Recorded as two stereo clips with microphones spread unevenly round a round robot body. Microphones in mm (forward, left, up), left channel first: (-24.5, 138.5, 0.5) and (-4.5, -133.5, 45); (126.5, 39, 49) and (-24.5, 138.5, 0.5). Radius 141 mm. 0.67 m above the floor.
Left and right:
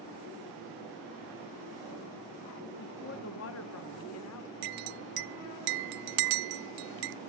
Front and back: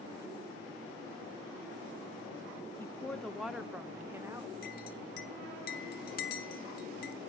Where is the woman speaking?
50° left, 1.4 m; by 4.5 s 80° left, 1.9 m.